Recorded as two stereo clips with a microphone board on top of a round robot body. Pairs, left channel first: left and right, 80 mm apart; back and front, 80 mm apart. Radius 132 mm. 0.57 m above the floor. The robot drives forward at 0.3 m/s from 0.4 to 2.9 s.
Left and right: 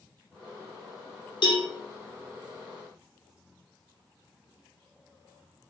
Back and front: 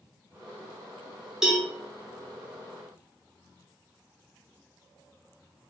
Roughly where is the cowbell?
Left.